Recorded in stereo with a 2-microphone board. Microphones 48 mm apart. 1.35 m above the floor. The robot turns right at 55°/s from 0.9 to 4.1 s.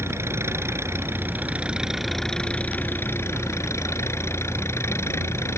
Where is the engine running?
65° right; by 5.6 s 110° left.